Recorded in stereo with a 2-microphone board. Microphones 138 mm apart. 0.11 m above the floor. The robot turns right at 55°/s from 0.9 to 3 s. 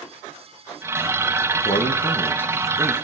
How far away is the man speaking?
About 4.5 m.